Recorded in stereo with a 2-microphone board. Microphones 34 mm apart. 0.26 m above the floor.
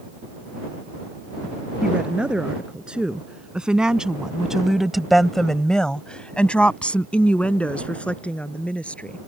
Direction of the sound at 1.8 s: 30° right (ahead or behind).